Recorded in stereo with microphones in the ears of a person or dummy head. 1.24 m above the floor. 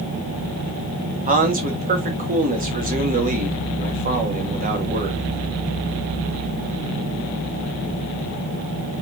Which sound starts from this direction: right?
A man speaking, at 1.3 s.